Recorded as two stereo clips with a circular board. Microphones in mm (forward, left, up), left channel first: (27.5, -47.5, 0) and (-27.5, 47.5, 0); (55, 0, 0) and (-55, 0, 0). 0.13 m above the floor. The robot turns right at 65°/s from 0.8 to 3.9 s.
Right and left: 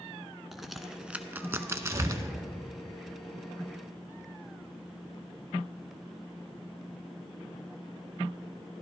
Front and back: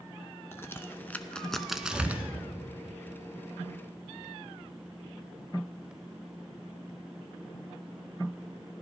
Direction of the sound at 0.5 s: 35° left.